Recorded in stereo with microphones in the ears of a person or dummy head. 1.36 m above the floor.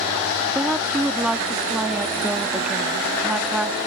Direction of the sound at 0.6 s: 5° right (ahead or behind).